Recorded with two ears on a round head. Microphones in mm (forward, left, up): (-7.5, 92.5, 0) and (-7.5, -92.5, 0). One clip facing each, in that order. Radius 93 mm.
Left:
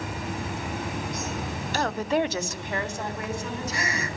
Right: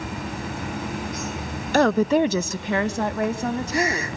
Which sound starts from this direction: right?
A woman speaking, at 1.7 s.